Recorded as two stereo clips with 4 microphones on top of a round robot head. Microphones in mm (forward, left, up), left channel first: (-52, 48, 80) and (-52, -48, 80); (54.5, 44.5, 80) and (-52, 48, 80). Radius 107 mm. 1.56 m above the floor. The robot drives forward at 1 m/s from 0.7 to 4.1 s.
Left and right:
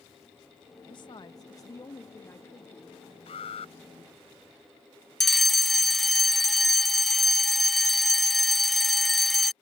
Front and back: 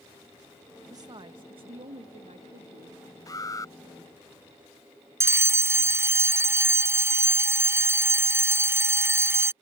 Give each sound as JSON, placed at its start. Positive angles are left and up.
{"t": 0.9, "sound": "a woman speaking", "azimuth_deg": 125}
{"t": 3.3, "sound": "an alarm", "azimuth_deg": 55}
{"t": 5.2, "sound": "a fire alarm", "azimuth_deg": 175}